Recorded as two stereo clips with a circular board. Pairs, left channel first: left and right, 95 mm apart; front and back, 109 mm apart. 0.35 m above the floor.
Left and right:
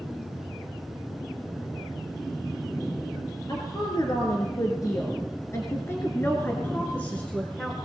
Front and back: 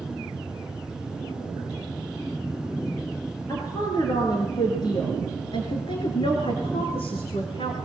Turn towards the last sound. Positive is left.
turn(degrees=5)